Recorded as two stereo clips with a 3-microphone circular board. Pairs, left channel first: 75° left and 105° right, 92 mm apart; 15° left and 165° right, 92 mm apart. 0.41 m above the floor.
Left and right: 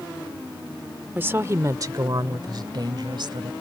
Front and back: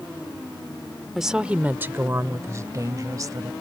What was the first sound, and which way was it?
A woman speaking, 80° right.